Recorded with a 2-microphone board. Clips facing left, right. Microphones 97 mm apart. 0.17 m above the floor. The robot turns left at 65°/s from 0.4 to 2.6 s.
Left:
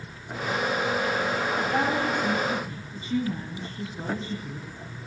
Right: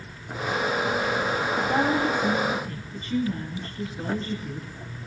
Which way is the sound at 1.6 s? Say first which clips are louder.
Right 4 dB; 125° right.